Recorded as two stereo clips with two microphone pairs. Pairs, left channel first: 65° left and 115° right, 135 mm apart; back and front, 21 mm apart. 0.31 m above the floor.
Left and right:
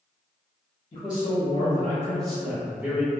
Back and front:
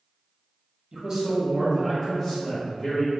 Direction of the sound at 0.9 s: 50° left.